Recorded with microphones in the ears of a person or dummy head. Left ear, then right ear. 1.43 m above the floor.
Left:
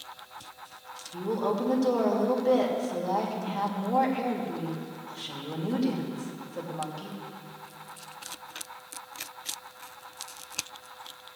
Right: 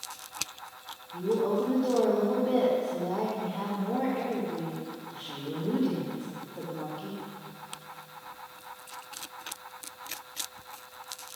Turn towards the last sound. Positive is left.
turn(degrees=75)  # may be behind; listen again after turning